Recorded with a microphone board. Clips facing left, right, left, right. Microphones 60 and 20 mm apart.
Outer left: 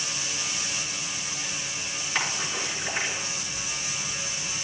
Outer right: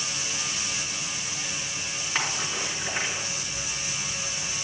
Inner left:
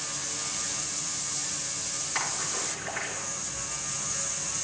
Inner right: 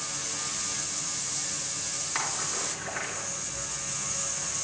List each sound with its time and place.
2.1 s a splash: 15° right (ahead or behind), 4 m